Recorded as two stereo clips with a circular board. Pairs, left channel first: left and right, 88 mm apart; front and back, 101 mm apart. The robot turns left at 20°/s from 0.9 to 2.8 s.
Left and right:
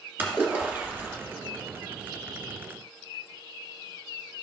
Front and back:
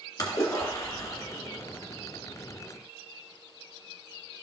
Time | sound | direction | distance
0.2 | a splash | 35° right | 2 m